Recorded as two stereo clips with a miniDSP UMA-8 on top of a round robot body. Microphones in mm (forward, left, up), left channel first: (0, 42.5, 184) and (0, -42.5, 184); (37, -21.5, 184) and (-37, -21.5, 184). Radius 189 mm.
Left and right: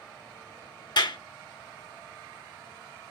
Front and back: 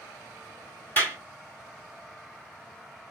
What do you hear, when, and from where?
1.0 s a clap: 65° left, 3 m